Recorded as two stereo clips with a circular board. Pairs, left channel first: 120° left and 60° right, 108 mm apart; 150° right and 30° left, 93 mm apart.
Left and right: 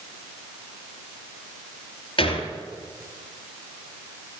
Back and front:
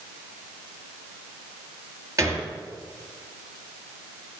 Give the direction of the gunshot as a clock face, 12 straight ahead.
9 o'clock.